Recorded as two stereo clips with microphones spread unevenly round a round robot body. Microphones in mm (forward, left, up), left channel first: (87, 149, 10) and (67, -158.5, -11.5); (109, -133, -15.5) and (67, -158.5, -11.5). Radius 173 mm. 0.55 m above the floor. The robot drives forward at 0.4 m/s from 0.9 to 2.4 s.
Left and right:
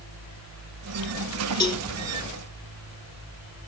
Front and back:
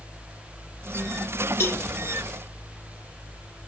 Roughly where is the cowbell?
Ahead.